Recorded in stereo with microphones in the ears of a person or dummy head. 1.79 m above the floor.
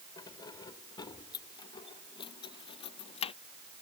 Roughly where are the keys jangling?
Left.